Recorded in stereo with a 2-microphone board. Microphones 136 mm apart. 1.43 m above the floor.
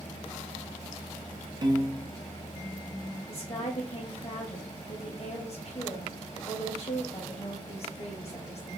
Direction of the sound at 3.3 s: 50° left (ahead or behind).